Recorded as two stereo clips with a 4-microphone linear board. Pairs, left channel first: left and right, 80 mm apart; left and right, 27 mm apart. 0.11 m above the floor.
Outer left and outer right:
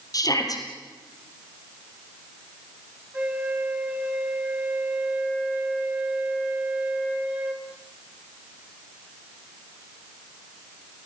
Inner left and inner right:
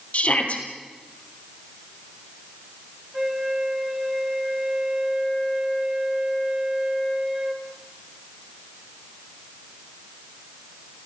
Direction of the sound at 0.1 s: 50° left (ahead or behind).